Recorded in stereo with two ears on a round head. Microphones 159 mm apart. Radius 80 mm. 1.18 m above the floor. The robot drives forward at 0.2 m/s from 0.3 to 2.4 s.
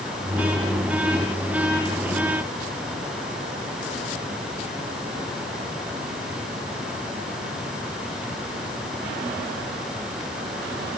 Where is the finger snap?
No finger snap in this recording.